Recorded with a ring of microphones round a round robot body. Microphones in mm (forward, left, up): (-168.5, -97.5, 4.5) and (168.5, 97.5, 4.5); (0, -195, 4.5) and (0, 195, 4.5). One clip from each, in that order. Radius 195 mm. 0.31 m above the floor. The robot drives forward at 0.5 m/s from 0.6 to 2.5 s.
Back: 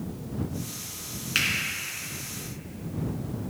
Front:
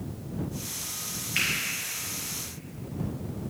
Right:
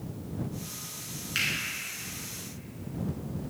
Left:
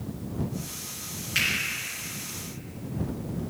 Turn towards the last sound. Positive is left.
turn(degrees=-170)